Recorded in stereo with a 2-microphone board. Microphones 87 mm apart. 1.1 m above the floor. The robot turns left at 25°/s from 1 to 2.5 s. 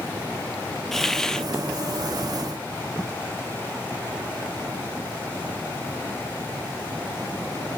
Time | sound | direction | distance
0.9 | a hiss | 5° left (ahead or behind) | 0.5 m